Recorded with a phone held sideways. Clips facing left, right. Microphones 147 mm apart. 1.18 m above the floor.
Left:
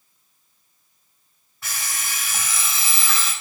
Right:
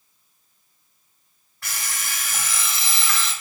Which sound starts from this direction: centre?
An alarm clock, at 1.6 s.